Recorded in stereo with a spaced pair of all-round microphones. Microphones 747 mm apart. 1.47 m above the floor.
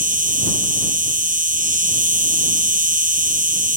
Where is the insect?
10° right (ahead or behind).